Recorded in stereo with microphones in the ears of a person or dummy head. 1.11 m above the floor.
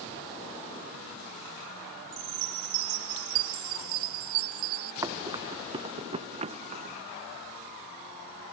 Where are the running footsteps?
20° right (ahead or behind); by 7.0 s 40° right (ahead or behind).